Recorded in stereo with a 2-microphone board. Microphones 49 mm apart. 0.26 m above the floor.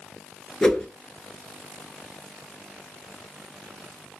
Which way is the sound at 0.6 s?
15° left (ahead or behind).